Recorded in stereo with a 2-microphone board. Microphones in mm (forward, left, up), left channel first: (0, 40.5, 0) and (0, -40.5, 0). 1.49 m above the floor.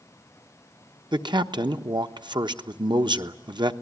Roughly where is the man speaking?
Right.